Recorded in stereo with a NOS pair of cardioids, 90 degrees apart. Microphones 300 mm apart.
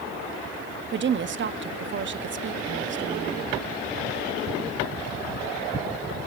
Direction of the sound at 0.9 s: 40° right.